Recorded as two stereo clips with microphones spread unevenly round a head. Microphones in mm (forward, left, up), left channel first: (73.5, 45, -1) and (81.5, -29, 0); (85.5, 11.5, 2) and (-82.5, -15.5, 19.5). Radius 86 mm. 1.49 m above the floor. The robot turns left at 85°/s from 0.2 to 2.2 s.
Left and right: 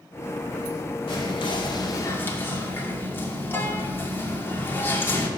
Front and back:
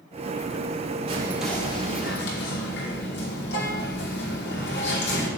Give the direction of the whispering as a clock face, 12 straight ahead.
8 o'clock.